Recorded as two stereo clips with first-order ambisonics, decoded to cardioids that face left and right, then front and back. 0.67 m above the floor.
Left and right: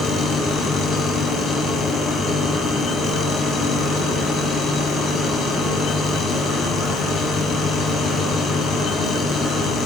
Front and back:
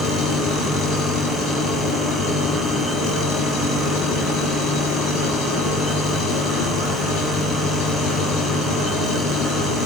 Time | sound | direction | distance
0.0 | an engine running | 30° left | 7 m